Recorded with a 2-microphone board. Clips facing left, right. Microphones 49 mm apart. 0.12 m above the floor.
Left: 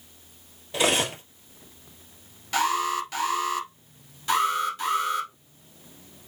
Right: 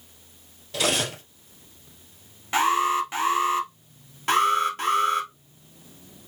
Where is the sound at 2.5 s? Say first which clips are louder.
Right 3 dB; 25° right (ahead or behind), 1.3 m.